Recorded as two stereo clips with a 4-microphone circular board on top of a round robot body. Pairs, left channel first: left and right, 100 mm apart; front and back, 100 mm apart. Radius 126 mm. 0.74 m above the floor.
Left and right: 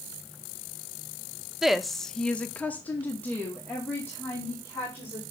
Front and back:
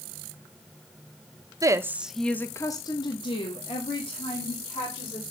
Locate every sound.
1.6 s a woman speaking: 175° right, 1.0 m; by 5.2 s 20° left, 3 m